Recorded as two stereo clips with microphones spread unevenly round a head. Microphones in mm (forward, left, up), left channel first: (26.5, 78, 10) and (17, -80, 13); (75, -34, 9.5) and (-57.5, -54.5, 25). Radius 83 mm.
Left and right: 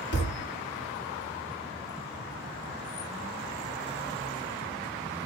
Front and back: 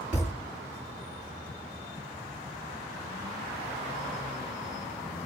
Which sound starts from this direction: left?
A thud, at 0.1 s.